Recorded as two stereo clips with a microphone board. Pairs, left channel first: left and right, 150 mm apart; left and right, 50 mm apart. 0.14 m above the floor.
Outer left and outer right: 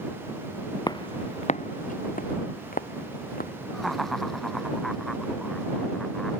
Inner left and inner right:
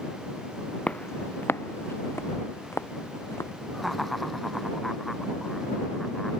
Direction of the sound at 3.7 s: Centre (ahead or behind).